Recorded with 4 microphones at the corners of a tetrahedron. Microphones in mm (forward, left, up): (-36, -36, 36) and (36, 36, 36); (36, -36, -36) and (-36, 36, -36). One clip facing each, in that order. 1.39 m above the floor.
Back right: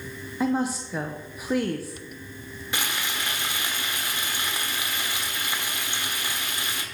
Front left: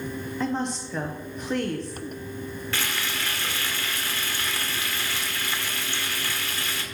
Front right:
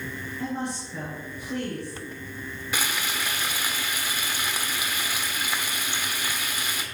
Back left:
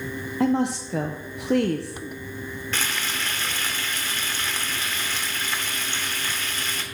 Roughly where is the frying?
Right.